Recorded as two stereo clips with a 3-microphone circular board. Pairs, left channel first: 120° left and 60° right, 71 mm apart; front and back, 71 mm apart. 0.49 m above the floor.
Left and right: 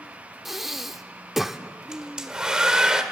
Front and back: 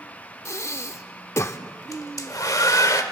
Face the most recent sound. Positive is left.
turn(degrees=20)